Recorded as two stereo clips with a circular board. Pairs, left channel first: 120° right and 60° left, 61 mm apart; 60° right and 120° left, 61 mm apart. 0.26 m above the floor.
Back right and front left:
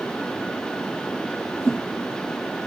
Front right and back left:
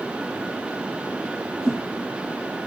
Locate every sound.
1.6 s a whoosh: 175° left, 3 m